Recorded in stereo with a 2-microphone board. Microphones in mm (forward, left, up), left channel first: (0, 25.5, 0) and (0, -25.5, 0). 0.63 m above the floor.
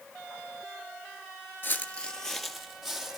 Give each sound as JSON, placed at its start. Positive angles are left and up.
{"t": 1.6, "sound": "footsteps", "side_deg": 40, "distance_m": 0.7}